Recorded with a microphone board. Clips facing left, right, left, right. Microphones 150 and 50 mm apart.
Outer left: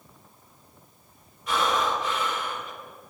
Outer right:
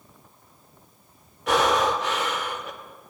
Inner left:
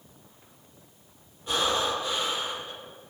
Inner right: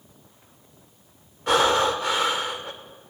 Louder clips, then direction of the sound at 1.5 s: Outer right 4 dB, inner right 7 dB; 75° right (ahead or behind).